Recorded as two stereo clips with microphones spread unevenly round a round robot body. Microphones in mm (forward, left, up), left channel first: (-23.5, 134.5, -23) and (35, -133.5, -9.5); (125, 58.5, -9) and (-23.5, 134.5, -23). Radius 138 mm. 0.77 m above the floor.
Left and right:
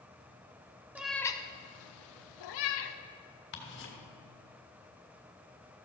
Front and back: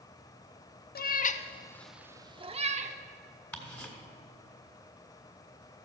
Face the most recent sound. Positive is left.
turn(degrees=55)